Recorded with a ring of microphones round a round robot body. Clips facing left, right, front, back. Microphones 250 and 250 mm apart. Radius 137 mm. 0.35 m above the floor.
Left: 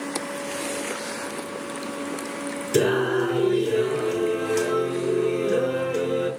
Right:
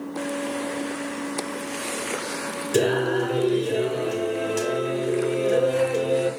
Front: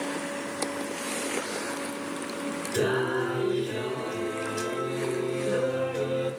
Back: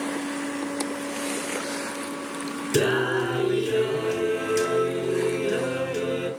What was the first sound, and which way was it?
Singing, 160° left.